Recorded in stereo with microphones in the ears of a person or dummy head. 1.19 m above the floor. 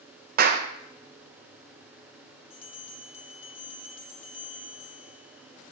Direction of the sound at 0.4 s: 55° right (ahead or behind).